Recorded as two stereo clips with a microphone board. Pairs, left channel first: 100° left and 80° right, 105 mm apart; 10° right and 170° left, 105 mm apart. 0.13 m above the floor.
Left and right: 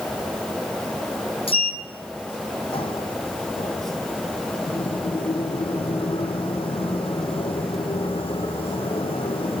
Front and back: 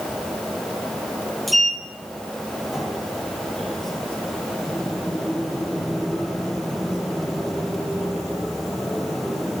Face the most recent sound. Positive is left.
turn(degrees=80)